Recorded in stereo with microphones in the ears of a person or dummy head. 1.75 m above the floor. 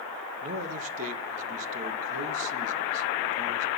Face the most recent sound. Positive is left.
turn(degrees=-40)  # may be behind; listen again after turning